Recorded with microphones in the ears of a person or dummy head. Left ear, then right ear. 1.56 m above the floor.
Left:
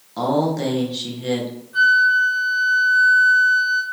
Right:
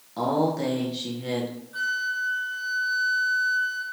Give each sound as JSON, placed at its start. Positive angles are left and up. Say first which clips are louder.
{"t": 0.2, "sound": "a man speaking", "louder": "left 4 dB", "side_deg": 10, "distance_m": 1.6}
{"t": 1.7, "sound": "a flute", "louder": "left 13 dB", "side_deg": 5, "distance_m": 3.0}